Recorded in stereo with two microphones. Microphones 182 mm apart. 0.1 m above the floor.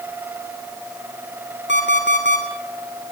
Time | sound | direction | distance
1.7 | an alarm clock | 80° left | 3.5 m